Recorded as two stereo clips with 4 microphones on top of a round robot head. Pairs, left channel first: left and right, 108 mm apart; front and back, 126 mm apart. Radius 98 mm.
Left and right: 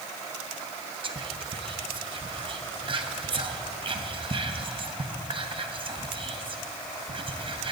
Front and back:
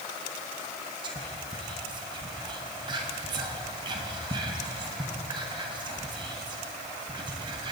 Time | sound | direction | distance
1.0 | whispering | 125° right | 1.2 m